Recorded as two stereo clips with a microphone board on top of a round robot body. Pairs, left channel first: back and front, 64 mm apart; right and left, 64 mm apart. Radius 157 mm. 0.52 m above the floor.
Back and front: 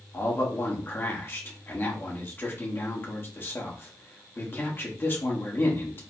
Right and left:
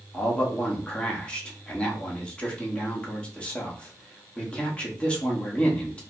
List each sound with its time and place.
0.1 s a man speaking: 150° right, 1.4 m